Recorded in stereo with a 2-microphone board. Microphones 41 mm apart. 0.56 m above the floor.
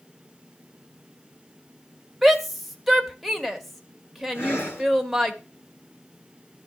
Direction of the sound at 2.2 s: Centre (ahead or behind).